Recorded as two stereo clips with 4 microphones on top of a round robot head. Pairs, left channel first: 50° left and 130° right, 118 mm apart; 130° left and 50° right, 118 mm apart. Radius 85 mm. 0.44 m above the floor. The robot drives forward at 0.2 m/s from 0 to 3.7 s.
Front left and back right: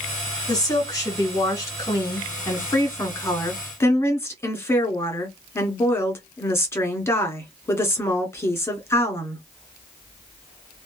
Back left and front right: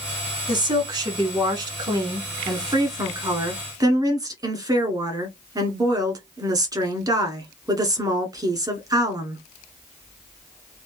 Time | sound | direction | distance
0.5 | a woman speaking | 5° right | 1.8 m